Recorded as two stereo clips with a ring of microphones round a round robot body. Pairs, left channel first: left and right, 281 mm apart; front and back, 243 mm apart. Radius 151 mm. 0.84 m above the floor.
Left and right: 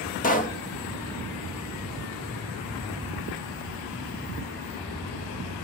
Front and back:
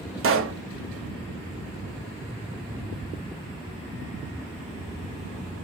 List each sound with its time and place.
0.2 s a pop: 150° left, 1.0 m